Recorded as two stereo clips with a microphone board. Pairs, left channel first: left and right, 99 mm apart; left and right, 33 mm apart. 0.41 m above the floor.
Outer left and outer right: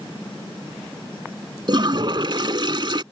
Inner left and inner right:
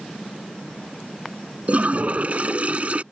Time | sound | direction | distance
1.7 | a toilet flushing | 50° right (ahead or behind) | ?